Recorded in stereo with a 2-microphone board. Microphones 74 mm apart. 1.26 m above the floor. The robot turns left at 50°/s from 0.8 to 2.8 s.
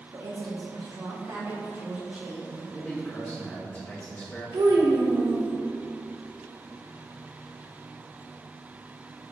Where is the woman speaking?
100° right, 1.0 m; by 2.6 s 165° left, 1.0 m.